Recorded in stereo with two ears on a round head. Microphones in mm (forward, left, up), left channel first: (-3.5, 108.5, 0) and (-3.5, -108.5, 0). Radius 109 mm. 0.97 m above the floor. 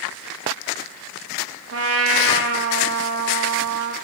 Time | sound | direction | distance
1.7 | a trumpet | 65° right (ahead or behind) | 1.0 m